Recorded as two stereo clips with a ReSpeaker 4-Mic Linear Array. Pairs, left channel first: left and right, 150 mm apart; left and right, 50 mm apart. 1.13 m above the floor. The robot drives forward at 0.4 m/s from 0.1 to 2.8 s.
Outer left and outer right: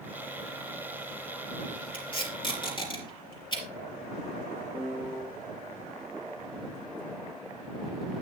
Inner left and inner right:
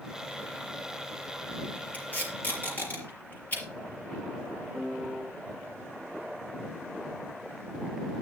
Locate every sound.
1.9 s tape being pulled: 35° left (ahead or behind), 4.5 m; by 3.6 s 30° left (ahead or behind), 4.5 m
4.7 s a piano: 5° right (ahead or behind), 5 m